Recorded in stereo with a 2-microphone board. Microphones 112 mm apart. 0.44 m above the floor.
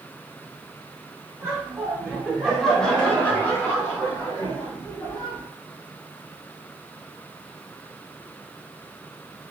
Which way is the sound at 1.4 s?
25° right (ahead or behind).